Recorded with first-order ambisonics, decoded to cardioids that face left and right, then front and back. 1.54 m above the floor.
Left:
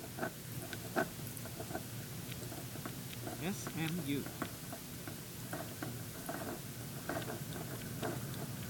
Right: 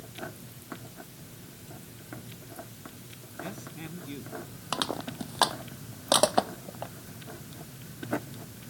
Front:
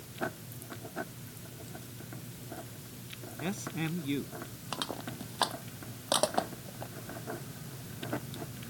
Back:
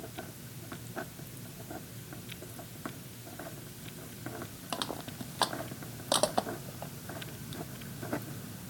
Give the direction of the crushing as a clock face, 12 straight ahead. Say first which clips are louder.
Right 16 dB, even; 3 o'clock.